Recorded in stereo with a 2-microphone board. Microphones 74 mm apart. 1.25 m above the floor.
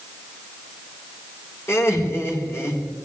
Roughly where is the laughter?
Left.